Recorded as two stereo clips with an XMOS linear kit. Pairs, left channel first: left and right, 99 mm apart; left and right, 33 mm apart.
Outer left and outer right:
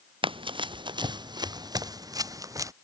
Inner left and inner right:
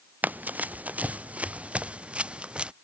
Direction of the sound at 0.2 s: 60° right (ahead or behind).